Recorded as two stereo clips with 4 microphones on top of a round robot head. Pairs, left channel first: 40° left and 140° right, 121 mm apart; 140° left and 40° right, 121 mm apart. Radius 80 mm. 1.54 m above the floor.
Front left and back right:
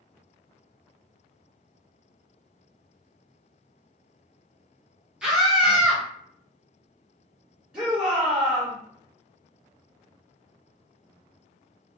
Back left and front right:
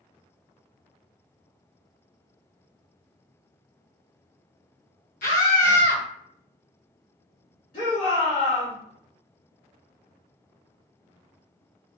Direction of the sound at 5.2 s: 135° left.